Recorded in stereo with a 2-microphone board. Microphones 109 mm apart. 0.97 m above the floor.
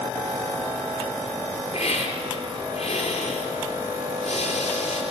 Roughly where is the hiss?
Left.